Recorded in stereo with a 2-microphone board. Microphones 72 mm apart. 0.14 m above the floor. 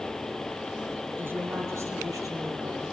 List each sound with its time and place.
1.2 s a woman speaking: 30° right (ahead or behind), 4 m; by 2.8 s 60° right (ahead or behind), 4 m